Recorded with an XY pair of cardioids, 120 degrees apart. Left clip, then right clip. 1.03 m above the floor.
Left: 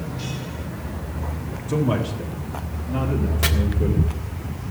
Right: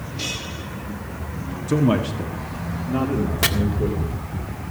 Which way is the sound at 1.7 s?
45° right.